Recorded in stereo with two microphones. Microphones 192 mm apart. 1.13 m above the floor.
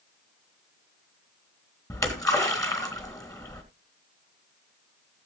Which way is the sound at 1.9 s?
15° left (ahead or behind).